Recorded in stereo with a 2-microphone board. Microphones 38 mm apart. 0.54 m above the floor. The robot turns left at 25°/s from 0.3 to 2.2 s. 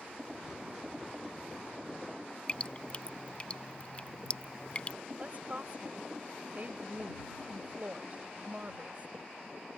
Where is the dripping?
35° left (ahead or behind).